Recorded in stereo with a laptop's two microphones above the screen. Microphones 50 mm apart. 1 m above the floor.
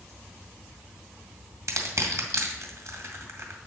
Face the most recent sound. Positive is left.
turn(degrees=-70)  # may be behind; listen again after turning